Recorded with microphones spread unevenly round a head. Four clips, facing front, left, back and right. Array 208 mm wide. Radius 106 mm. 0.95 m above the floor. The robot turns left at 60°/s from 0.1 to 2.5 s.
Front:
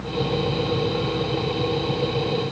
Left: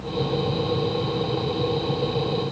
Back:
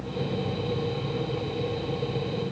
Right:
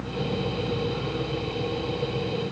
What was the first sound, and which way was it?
Only background noise.